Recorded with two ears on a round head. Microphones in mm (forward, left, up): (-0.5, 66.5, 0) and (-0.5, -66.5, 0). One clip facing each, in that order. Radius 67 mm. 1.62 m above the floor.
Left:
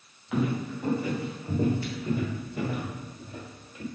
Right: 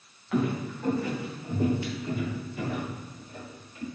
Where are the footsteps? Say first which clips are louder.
Even; 5° left (ahead or behind), 2 m; by 3.9 s 60° left (ahead or behind), 3 m.